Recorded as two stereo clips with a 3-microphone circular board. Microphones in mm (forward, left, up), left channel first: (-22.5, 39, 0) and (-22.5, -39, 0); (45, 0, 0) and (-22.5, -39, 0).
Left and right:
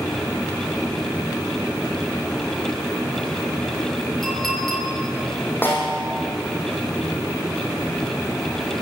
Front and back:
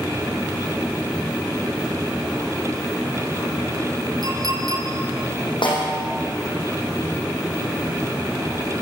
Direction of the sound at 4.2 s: 175° left.